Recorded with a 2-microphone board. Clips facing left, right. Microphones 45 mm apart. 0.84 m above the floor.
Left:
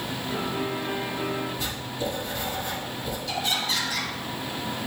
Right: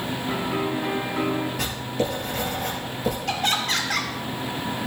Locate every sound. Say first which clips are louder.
0.3 s a piano: right 3 dB; 80° right, 6.5 m
1.6 s writing: right 4 dB; 85° right, 5.5 m
3.3 s laughter: right 2 dB; 55° right (ahead or behind), 3 m